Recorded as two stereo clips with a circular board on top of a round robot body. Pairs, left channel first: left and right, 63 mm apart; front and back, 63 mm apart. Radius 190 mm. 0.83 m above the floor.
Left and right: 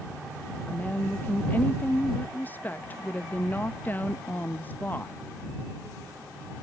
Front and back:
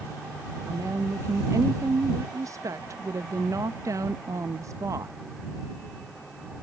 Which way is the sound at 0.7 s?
150° left.